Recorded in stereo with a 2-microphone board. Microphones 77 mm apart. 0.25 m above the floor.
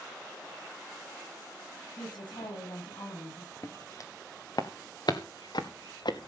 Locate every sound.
2.0 s a woman speaking: 75° left (ahead or behind), 9 m
3.6 s footsteps: 45° left (ahead or behind), 2 m; by 6.3 s 80° left, 2.0 m